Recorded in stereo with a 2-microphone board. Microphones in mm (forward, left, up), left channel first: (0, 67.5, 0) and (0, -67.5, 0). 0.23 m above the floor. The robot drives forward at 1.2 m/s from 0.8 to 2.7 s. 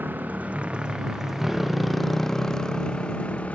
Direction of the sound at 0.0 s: 15° right (ahead or behind).